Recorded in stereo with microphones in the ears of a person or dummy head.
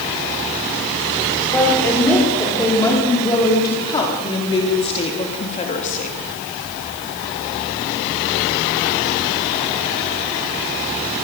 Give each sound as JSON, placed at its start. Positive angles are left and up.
{"t": 1.4, "sound": "a woman speaking", "side_deg": 10, "distance_m": 5.5}